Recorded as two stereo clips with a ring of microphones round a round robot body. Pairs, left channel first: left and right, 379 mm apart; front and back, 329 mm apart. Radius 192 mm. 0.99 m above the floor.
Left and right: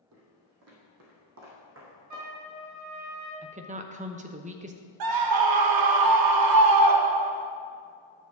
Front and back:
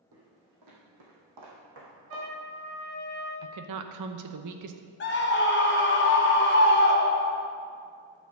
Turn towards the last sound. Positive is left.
turn(degrees=-60)